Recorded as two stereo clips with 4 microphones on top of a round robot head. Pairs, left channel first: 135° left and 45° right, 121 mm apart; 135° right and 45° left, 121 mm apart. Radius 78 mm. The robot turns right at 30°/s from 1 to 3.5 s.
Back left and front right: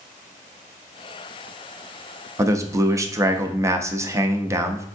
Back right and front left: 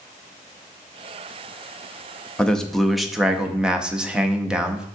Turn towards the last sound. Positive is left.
turn(degrees=-25)